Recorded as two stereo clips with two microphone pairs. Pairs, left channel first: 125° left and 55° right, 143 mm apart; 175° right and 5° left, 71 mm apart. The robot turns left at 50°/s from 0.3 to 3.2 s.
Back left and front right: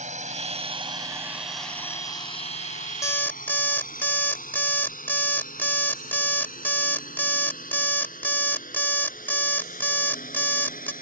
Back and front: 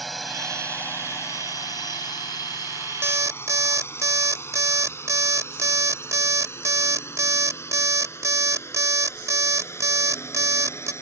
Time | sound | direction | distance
0.0 | a drone | 85° right | ?
3.0 | an alarm clock | 55° left | ?